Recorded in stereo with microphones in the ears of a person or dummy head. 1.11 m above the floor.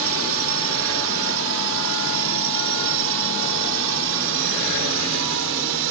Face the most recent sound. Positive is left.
turn(degrees=-65)  # may be behind; listen again after turning